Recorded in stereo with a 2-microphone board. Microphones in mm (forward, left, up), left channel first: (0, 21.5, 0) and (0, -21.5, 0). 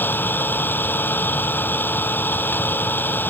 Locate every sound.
0.0 s an engine running: 50° left (ahead or behind)